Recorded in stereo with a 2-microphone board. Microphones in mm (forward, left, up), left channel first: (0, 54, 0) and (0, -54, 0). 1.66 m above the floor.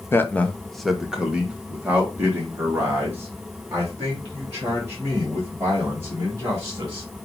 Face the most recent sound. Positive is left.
turn(degrees=-30)  # may be behind; listen again after turning